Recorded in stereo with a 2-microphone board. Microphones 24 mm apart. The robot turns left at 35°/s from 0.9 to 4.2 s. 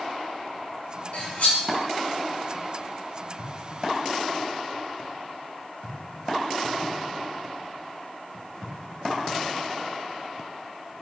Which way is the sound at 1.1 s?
80° left.